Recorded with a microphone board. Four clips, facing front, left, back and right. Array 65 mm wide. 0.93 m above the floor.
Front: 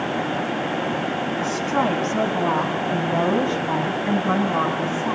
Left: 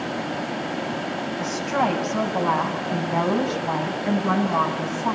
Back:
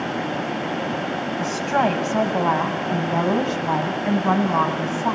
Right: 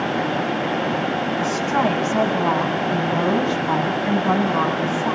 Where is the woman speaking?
175° left, 6 m; by 5.2 s 160° left, 8 m.